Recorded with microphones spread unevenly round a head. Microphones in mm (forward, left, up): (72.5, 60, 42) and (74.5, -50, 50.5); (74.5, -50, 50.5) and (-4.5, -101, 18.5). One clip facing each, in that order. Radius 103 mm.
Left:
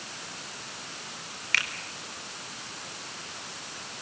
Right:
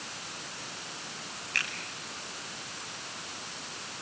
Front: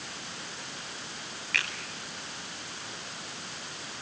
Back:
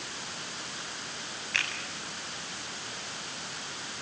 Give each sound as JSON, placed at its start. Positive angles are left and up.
{"t": 1.5, "sound": "a finger snap", "azimuth_deg": 85, "distance_m": 4.5}